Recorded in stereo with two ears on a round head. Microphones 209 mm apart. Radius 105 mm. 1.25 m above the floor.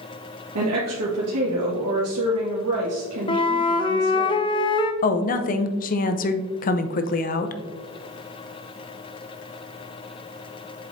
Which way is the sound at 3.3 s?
25° left (ahead or behind).